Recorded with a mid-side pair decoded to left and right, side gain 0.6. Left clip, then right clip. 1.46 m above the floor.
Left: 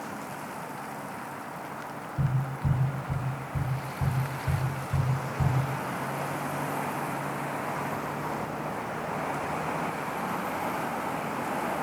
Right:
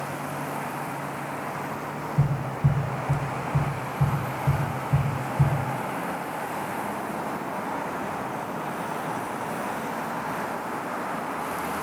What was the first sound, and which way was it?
Tapping, 50° right.